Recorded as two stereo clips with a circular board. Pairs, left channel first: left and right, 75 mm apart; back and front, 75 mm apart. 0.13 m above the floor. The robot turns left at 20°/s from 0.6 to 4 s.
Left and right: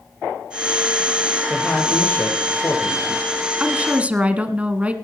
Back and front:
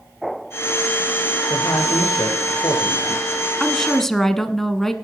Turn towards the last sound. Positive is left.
turn(degrees=-105)